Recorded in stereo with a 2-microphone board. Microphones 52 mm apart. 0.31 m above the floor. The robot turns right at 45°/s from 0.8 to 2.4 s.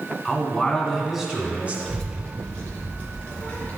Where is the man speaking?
170° left, 2 m; by 1.8 s 145° right, 2 m.